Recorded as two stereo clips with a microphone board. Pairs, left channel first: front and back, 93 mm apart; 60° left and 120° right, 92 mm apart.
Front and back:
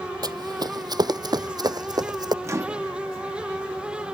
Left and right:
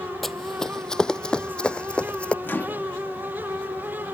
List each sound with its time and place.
0.2 s running footsteps: 150° left; by 2.3 s 140° left
2.4 s a microwave: 125° left